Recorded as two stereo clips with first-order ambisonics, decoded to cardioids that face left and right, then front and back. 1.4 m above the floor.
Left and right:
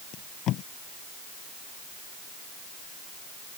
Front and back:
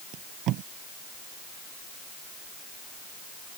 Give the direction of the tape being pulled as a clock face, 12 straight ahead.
7 o'clock.